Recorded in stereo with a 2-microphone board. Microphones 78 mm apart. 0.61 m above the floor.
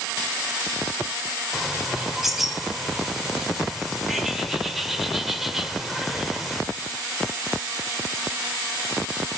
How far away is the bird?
About 1.9 m.